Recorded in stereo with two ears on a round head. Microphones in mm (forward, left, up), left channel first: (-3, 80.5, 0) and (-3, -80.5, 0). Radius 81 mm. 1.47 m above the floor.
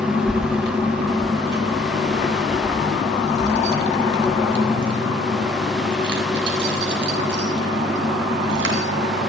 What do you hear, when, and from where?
0.3 s keys jangling: 55° right (ahead or behind), 1.5 m; by 8.8 s 65° right (ahead or behind), 7.5 m